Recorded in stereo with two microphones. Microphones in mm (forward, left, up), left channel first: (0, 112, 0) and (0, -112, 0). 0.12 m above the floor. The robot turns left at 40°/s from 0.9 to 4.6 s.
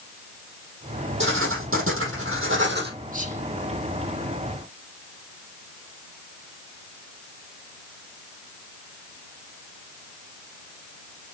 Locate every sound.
1.2 s writing: 60° right, 3 m; by 2.9 s 130° right, 3 m
3.1 s whispering: 40° right (ahead or behind), 2 m; by 3.4 s 30° right (ahead or behind), 2 m